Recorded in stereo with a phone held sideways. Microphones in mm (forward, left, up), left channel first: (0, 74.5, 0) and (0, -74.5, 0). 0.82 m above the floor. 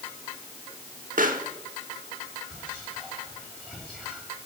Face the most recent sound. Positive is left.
turn(degrees=5)  # may be behind; listen again after turning